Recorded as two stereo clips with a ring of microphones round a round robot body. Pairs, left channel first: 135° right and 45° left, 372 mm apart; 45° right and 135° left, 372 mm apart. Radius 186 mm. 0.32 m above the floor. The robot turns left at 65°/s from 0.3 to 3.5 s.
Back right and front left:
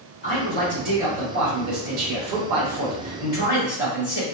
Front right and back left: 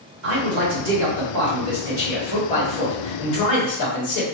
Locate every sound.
0.2 s a man speaking: 170° left, 1.9 m; by 4.2 s 40° right, 1.9 m